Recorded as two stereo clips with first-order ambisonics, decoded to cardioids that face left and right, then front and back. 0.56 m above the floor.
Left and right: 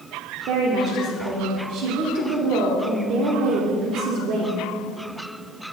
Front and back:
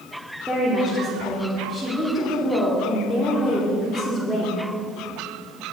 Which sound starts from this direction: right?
A woman speaking, at 0.5 s.